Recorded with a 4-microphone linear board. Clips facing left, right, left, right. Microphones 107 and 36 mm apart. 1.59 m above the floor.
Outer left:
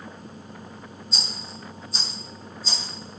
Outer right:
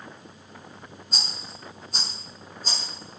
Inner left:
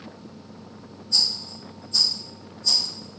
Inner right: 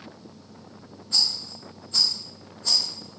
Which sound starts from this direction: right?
A rattle, at 1.1 s.